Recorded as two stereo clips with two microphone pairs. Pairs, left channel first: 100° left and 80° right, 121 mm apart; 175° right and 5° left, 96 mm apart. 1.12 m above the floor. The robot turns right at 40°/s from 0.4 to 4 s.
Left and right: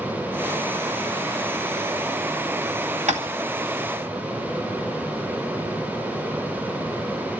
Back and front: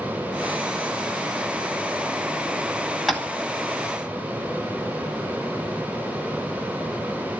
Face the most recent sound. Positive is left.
turn(degrees=-50)